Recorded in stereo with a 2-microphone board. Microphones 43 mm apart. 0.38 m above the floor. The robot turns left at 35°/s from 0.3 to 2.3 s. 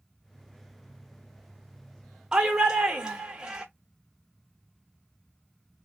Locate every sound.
2.3 s a shout: 20° right (ahead or behind), 0.8 m